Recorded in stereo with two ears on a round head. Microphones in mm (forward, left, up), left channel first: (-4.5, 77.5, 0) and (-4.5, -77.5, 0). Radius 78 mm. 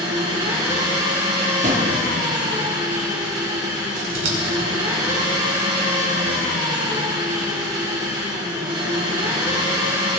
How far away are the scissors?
About 2.5 m.